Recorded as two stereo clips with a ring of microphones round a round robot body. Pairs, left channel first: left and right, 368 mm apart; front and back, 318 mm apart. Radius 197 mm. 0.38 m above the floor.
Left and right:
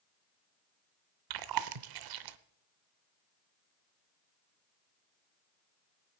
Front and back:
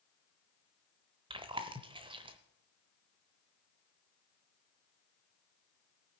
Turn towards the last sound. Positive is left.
turn(degrees=-105)